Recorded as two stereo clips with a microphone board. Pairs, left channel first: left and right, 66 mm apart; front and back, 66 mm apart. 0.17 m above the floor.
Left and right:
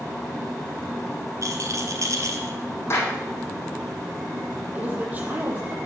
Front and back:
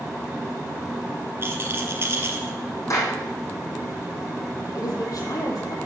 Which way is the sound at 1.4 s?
125° right.